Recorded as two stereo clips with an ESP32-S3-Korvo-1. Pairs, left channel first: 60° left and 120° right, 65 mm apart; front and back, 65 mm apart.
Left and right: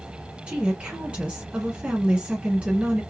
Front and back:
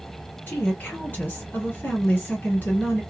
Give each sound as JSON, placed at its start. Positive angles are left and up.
{"t": 0.5, "sound": "a woman speaking", "azimuth_deg": -55, "distance_m": 3.0}